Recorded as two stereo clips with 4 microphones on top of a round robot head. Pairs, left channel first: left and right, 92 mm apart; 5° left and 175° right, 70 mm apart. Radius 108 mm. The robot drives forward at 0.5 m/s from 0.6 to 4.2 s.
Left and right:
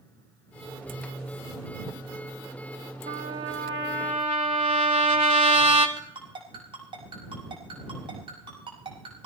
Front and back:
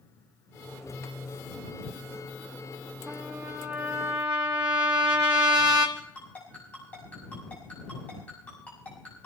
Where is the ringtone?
70° right, 5.5 m.